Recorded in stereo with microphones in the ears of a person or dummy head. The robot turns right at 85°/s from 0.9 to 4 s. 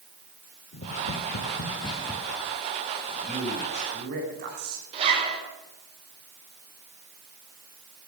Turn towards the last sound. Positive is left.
turn(degrees=-35)  # may be behind; listen again after turning